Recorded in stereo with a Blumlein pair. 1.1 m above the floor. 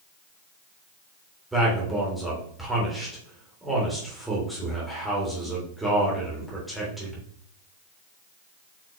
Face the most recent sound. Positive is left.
turn(degrees=0)